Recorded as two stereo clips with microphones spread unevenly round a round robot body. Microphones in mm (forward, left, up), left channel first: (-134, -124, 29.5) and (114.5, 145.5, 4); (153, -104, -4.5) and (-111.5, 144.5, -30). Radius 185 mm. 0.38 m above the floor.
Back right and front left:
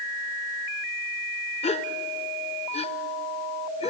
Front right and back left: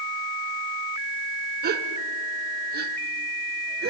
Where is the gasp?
160° left, 1.1 m.